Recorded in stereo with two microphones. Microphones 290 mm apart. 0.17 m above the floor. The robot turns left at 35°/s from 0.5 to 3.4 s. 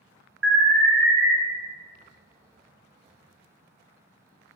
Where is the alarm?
40° right (ahead or behind), 1.9 m; by 1.3 s 15° right (ahead or behind), 1.9 m.